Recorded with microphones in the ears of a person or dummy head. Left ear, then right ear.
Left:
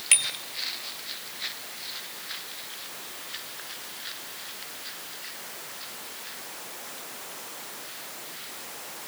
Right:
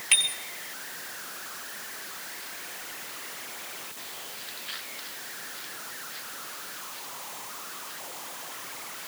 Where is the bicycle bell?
25° left (ahead or behind), 4 m.